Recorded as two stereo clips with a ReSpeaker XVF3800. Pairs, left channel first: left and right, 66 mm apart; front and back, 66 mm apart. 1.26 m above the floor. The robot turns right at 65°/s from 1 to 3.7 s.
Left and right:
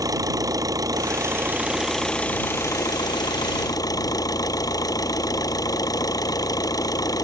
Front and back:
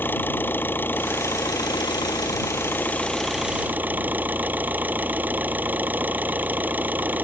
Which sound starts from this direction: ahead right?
An engine running, at 0.0 s.